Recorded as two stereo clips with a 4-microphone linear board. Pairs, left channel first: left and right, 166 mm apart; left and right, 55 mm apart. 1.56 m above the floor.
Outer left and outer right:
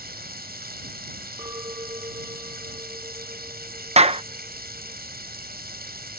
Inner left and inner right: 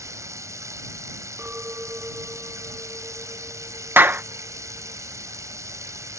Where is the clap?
40° right (ahead or behind).